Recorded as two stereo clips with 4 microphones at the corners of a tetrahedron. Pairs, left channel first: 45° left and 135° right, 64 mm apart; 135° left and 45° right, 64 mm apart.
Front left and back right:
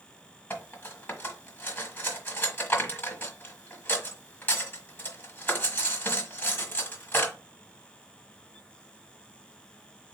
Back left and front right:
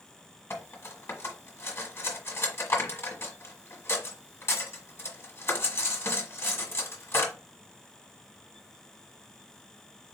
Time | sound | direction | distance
0.5 | cutlery clinking | 90° left | 1.3 m